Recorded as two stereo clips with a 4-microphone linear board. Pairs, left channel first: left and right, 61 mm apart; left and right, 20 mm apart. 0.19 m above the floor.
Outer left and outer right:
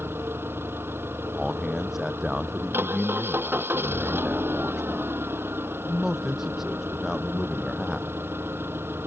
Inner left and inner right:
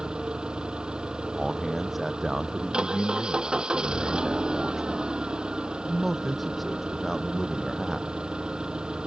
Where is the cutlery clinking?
I don't hear cutlery clinking.